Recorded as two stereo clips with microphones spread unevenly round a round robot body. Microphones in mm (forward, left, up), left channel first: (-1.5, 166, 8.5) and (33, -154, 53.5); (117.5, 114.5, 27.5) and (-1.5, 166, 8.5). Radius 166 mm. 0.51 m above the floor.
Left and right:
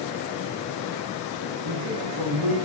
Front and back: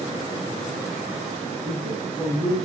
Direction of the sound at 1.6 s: 105° right.